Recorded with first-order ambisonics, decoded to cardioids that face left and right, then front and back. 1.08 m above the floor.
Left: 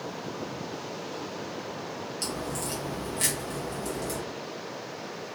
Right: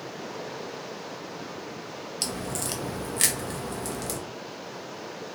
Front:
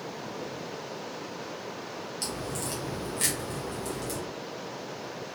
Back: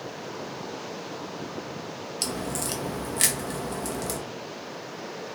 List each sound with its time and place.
2.2 s a crack: 135° right, 0.5 m